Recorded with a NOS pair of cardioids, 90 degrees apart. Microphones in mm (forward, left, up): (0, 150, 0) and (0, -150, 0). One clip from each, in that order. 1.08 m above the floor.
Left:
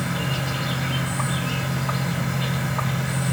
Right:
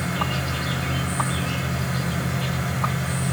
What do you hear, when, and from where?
0.0 s an insect: 5° left, 3 m